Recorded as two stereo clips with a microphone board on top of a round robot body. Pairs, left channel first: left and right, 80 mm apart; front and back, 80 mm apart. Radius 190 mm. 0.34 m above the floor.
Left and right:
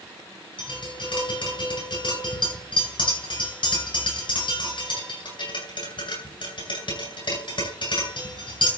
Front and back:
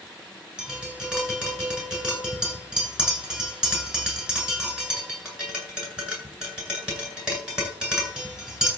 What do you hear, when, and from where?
0.6 s tapping: 100° left, 9 m